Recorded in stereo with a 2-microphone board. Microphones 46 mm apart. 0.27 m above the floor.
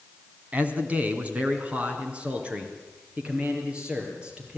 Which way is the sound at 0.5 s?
35° right (ahead or behind).